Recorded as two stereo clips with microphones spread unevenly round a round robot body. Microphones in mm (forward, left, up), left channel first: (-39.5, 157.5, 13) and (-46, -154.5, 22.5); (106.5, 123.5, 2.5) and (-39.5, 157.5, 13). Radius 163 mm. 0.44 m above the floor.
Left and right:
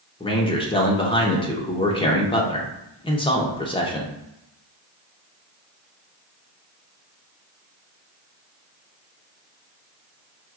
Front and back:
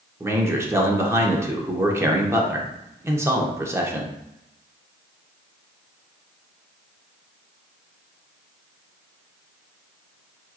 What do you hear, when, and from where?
0.2 s a man speaking: 120° left, 0.8 m